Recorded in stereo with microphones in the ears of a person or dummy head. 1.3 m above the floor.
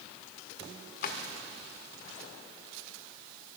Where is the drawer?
60° left (ahead or behind), 1.5 m.